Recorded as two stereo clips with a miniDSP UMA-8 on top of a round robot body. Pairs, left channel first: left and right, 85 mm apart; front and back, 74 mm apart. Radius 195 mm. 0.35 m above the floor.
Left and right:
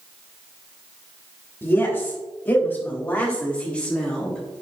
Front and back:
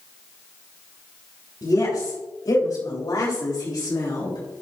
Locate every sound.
1.6 s a woman speaking: 30° left, 4 m; by 4.4 s 10° left, 2.5 m